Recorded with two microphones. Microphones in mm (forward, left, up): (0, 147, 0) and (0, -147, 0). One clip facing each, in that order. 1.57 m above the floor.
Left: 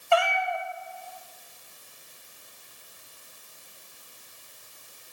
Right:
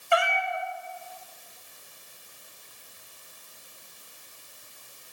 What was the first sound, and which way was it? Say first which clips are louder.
A cat meowing: left 2 dB; 20° right (ahead or behind).